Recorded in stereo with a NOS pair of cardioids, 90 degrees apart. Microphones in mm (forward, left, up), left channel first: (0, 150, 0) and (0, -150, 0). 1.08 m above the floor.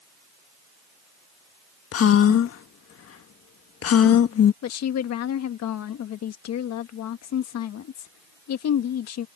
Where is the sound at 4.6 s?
70° left.